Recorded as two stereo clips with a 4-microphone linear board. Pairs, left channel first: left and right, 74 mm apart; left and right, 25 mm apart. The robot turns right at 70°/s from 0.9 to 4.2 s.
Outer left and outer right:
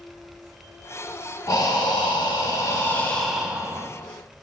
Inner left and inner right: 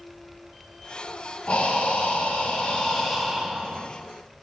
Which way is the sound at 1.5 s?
50° left.